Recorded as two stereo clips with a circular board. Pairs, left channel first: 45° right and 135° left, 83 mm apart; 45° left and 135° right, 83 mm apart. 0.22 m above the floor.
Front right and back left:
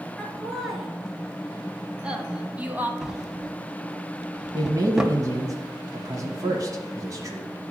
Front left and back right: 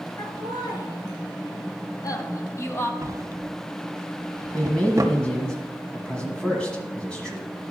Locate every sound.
0.2 s laughter: 45° left, 3 m; by 2.9 s 85° left, 1.2 m
3.0 s a drawer: 145° right, 0.8 m
4.5 s a man speaking: 115° left, 1.3 m